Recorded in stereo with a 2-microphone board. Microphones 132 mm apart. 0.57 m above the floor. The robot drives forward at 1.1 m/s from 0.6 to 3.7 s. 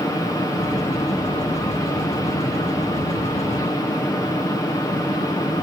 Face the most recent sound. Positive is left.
No sound to turn to.